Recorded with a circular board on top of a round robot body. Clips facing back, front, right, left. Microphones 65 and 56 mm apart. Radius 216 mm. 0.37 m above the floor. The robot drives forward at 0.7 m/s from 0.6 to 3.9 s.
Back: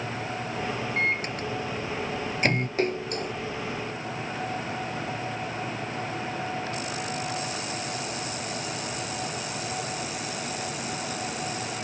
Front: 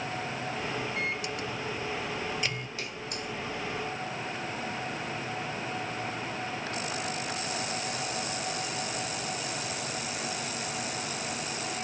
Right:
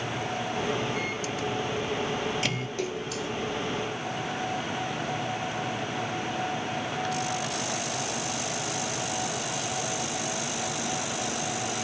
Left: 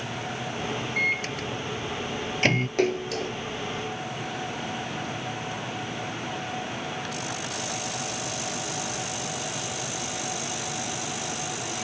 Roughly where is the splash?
Behind left.